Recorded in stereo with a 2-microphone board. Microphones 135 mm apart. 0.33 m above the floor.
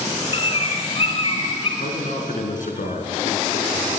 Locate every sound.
0.3 s a bird: 45° left (ahead or behind), 3.5 m
1.8 s a man speaking: 75° left (ahead or behind), 4 m